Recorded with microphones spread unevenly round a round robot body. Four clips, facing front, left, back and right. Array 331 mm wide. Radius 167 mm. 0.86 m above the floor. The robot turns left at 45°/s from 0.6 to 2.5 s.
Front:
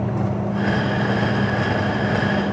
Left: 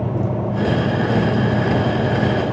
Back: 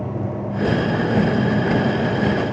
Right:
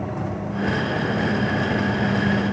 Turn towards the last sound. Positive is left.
No sound to turn to.